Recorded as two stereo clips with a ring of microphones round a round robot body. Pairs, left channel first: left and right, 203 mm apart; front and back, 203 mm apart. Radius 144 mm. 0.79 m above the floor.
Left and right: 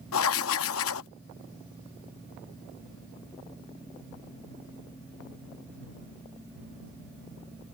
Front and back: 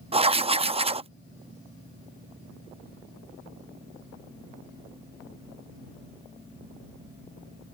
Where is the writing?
115° left.